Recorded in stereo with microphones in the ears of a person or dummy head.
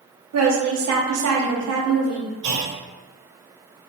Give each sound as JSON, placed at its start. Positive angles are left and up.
{"t": 0.3, "sound": "a woman speaking", "side_deg": -75, "distance_m": 0.8}
{"t": 2.4, "sound": "a clunk", "side_deg": -60, "distance_m": 1.0}